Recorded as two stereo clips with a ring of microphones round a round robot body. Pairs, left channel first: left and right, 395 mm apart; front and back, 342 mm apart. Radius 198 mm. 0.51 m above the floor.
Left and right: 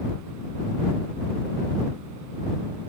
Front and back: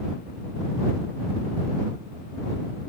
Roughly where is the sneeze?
No sneeze in this recording.